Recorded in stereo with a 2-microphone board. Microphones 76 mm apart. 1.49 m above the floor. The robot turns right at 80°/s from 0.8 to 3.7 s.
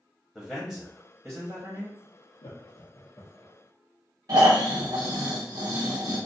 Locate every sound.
0.3 s a man speaking: 170° left, 0.7 m; by 2.0 s 95° right, 0.7 m
2.4 s laughter: 85° left, 0.6 m; by 3.5 s 5° right (ahead or behind), 0.6 m
4.3 s snoring: 55° right (ahead or behind), 1.1 m